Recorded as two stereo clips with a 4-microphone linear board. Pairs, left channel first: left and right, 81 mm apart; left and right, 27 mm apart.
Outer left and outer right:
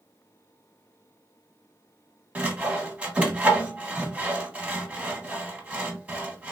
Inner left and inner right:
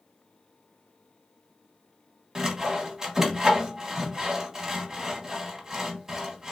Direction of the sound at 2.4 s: 15° right (ahead or behind).